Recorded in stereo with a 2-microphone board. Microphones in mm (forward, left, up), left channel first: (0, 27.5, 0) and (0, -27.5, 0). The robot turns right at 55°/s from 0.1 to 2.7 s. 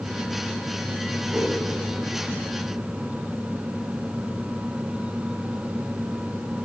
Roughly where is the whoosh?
Right.